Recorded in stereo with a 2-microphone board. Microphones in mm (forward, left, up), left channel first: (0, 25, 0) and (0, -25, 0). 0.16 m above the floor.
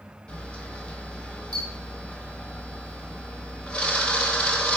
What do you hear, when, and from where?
0.3 s a camera shutter: 25° left (ahead or behind), 0.6 m